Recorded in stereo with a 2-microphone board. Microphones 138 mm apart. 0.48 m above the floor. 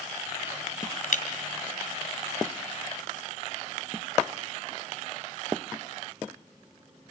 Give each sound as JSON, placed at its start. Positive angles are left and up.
{"t": 1.1, "sound": "breaking glass", "side_deg": 75, "distance_m": 2.0}